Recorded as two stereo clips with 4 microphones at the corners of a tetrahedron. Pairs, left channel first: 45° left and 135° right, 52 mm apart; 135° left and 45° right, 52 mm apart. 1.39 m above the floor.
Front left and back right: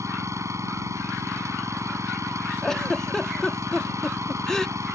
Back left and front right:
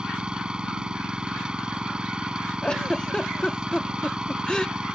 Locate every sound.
0.0 s an engine running: 120° right
2.6 s a giggle: 105° left